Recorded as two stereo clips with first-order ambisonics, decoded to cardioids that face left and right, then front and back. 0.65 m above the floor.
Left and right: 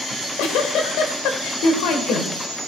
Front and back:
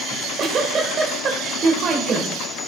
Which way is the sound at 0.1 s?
120° left.